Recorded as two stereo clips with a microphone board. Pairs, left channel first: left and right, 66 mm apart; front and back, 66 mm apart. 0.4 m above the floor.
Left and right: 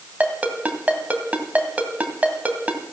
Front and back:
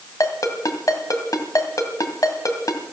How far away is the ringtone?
About 2 m.